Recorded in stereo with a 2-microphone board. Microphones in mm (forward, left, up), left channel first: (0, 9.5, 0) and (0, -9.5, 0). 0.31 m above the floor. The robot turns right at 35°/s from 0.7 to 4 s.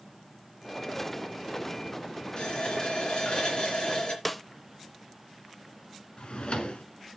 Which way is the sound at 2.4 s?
60° left.